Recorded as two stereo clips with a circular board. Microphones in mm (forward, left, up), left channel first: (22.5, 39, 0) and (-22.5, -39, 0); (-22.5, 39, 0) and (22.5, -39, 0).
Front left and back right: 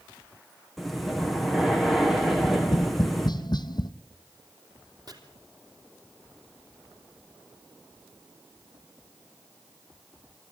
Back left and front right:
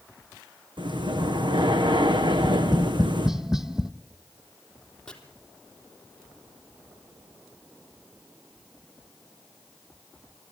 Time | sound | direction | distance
0.8 | breathing | 30° right | 2 m
2.3 | tapping | 25° left | 0.9 m
5.1 | chopping | 160° right | 3 m